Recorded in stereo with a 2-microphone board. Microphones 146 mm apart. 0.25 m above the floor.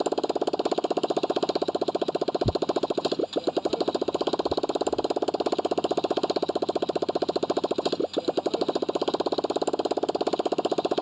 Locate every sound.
0.0 s a motorcycle: centre (ahead or behind)
2.4 s tearing paper: 5° right (ahead or behind)